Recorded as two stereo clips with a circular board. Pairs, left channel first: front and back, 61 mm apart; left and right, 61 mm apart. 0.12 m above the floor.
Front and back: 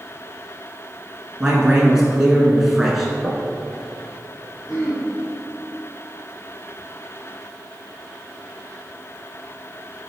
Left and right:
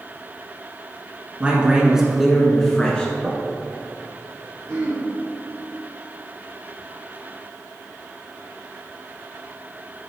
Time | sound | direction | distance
1.4 | a man speaking | 120° right | 1.3 m
3.2 | knocking | 45° right | 1.0 m
4.7 | throat clearing | 45° right | 2.5 m